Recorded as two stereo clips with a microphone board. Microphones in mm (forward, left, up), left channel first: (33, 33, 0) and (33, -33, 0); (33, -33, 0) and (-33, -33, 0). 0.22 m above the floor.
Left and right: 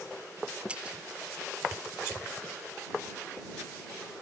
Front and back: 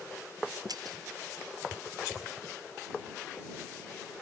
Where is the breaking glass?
165° right.